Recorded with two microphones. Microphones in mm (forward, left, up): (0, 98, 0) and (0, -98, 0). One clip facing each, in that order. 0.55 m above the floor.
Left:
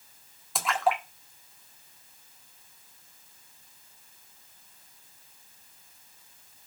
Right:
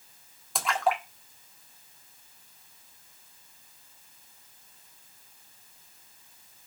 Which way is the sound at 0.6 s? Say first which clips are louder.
Left 1 dB; centre (ahead or behind).